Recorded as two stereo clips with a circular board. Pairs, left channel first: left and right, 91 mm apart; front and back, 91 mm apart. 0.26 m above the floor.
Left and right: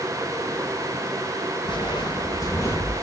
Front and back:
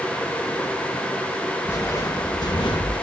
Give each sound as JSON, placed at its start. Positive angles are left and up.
{"t": 1.6, "sound": "footsteps", "azimuth_deg": 65, "distance_m": 0.9}